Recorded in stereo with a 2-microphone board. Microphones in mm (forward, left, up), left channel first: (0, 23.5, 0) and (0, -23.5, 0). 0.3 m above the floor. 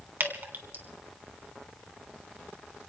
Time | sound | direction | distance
0.2 | dripping | 50° right (ahead or behind) | 2.5 m